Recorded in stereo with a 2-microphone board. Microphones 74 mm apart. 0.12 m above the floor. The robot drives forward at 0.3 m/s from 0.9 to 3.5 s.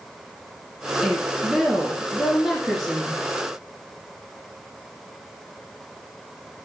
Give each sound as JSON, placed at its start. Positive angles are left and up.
{"t": 1.0, "sound": "a woman speaking", "side_deg": -5, "distance_m": 1.1}